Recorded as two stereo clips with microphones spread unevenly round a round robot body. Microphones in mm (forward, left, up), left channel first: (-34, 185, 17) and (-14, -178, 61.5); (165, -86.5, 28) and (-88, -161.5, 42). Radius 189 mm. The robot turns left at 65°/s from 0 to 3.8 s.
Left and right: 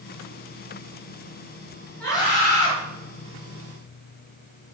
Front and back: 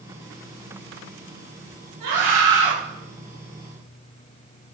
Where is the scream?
Straight behind, 6.5 m; by 2.7 s 135° left, 6.5 m.